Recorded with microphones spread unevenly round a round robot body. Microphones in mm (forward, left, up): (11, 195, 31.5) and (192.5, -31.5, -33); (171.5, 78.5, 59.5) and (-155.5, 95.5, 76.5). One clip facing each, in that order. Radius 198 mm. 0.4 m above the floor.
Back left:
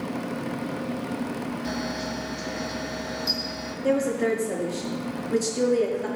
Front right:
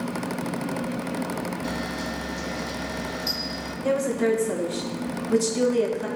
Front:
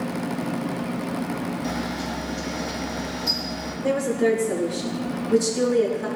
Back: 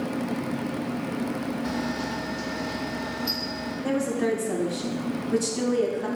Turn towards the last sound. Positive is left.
turn(degrees=-80)